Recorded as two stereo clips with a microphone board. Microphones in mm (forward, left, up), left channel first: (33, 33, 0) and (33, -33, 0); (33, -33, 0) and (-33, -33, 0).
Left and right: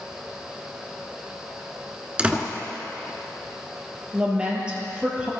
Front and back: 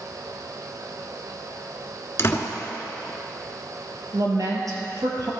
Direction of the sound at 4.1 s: 165° right.